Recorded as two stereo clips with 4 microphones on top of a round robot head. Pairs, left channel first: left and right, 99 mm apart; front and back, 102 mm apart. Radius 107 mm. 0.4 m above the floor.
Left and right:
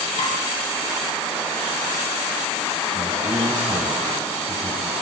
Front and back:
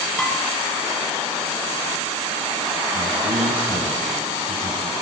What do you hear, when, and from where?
0.2 s dishes clattering: 80° left, 6.5 m
2.9 s a man speaking: 145° right, 4.5 m